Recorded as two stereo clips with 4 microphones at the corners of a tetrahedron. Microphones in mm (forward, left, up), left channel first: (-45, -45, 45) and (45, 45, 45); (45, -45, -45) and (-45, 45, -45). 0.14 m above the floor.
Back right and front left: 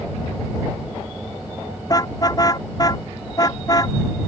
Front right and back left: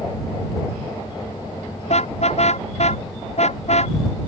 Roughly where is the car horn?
Right.